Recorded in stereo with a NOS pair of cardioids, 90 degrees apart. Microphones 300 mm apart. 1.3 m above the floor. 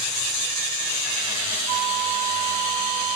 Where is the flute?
70° right, 0.8 m.